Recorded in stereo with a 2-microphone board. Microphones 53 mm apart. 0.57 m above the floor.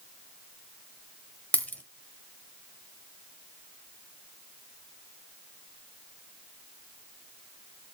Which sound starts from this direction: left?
A dropped coin, at 1.5 s.